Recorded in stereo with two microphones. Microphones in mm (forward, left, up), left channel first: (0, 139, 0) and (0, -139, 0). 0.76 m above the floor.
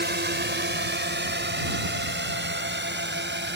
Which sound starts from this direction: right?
A drone, at 0.0 s.